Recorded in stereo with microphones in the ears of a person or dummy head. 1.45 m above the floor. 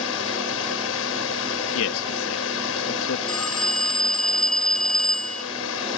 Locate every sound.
0.0 s a drone: 75° left (ahead or behind)
1.8 s a man speaking: 80° left
3.3 s a phone ringing: 5° left (ahead or behind)